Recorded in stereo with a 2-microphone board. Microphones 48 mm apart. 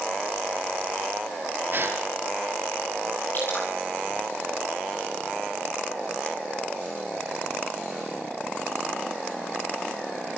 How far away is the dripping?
About 9 m.